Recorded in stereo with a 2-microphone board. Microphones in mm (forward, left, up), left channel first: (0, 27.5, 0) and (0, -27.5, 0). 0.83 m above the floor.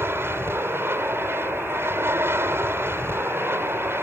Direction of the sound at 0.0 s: 45° right (ahead or behind).